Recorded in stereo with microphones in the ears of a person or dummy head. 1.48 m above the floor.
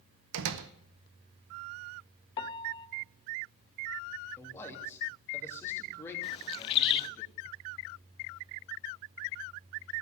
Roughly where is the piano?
Left.